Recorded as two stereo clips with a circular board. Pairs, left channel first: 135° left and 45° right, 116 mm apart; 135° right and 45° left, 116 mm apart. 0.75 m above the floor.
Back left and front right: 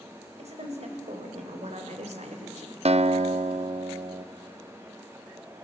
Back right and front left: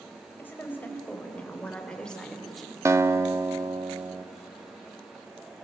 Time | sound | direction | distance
0.4 | a woman speaking | 60° right | 4 m
2.9 | a guitar | 20° right | 0.6 m